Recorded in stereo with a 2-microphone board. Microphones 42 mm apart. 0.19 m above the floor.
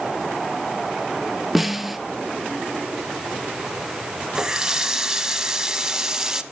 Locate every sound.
1.6 s a snare drum: 5° right (ahead or behind), 0.6 m
4.3 s a running tap: 15° right (ahead or behind), 0.7 m